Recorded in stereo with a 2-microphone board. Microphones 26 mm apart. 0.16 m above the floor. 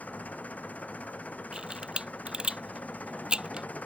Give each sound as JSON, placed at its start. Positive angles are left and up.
{"t": 0.0, "sound": "an engine running", "side_deg": 65}
{"t": 1.5, "sound": "a camera shutter", "side_deg": -35}